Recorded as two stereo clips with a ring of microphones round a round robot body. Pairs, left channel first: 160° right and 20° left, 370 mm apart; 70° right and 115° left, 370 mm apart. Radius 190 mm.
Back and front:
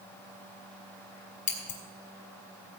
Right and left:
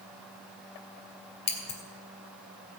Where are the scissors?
140° right, 3 m.